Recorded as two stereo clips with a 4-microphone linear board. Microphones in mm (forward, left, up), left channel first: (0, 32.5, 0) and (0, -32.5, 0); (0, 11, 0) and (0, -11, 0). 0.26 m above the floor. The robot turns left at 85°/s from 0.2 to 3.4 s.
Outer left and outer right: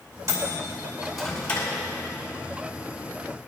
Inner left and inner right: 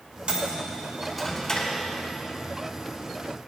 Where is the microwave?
60° right (ahead or behind), 2.5 m; by 1.7 s 40° left (ahead or behind), 2.5 m.